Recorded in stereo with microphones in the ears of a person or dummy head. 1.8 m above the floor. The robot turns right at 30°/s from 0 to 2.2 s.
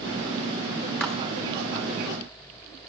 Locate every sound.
1.0 s a clap: 5° left (ahead or behind), 1.2 m